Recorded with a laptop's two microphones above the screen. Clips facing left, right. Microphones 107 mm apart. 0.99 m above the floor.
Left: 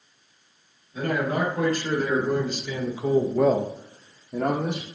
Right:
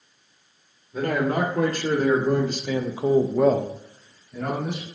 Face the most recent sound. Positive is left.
turn(degrees=80)